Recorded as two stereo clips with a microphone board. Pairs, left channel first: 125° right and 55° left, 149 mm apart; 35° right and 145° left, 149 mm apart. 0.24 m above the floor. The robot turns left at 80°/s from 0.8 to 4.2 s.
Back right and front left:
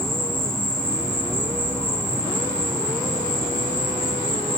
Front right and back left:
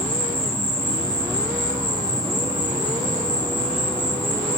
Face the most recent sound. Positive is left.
turn(degrees=25)